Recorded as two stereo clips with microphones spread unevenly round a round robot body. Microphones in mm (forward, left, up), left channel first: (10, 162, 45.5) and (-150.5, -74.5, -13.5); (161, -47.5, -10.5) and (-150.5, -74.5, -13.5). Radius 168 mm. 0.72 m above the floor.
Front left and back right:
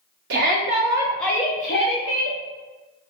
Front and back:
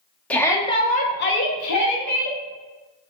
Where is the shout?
80° right, 1.1 m; by 2.4 s 25° left, 1.0 m.